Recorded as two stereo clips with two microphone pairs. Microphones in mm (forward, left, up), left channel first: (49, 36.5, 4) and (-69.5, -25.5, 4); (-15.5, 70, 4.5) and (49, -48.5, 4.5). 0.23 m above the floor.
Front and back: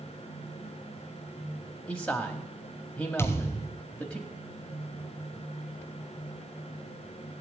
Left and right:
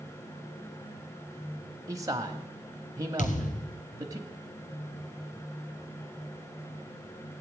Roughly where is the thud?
Left.